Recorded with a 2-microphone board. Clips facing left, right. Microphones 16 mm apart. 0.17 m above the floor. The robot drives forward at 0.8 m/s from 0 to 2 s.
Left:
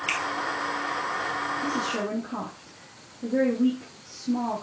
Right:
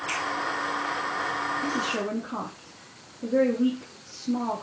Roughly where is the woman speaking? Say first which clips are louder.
Even; centre.